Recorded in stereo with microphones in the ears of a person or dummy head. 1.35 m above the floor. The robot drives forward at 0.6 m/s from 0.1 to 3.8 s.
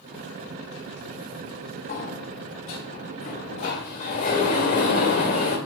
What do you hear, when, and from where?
1.9 s a sliding door: 50° left (ahead or behind), 1.3 m; by 5.6 s 40° left (ahead or behind), 1.6 m